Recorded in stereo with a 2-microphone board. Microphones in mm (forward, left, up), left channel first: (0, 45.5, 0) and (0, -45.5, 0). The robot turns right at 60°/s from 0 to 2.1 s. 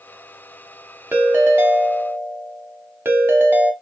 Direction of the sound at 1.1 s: 20° right (ahead or behind).